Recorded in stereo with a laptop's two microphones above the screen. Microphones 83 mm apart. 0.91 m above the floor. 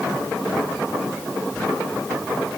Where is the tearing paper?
I don't hear tearing paper.